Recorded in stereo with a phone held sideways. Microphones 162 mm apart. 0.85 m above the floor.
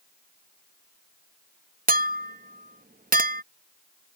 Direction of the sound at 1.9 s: 60° right (ahead or behind).